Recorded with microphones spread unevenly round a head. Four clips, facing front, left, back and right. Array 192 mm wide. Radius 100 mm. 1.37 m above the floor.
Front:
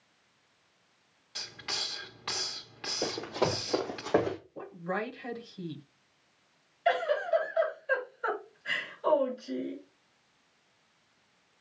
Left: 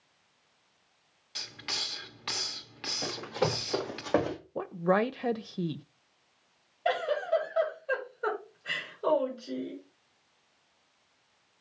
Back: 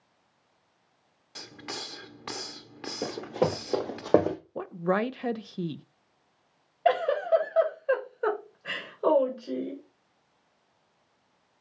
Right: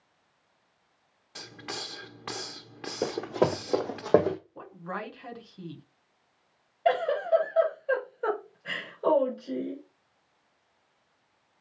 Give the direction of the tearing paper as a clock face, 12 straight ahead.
No tearing paper in this recording.